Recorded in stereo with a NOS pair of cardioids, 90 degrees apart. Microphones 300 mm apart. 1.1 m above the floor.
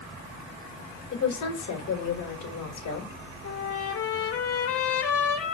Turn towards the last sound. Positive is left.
turn(degrees=50)